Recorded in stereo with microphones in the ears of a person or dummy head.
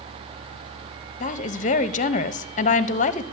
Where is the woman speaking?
40° left (ahead or behind), 0.7 m.